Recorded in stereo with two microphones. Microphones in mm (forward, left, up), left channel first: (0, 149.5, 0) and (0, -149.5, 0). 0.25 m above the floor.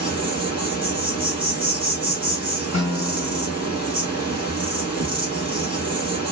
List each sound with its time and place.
0.0 s an insect: 15° right (ahead or behind), 1.5 m
2.7 s a guitar: 60° left (ahead or behind), 1.2 m